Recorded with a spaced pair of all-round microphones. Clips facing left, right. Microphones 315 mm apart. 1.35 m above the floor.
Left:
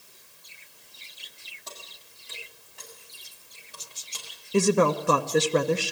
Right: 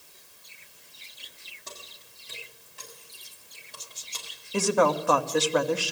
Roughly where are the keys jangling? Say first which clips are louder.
Even; centre.